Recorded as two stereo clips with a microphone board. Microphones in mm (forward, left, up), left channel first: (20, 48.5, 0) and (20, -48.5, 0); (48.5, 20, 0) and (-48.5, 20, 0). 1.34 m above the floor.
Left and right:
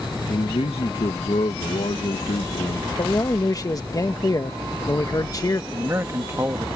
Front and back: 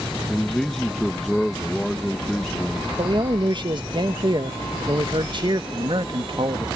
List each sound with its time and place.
0.3 s a man speaking: 85° left
3.0 s a man speaking: 140° left
5.7 s a man speaking: 150° right